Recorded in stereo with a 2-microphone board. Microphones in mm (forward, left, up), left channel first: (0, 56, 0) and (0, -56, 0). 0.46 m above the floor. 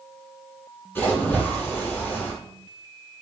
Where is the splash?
20° left (ahead or behind), 1.6 m.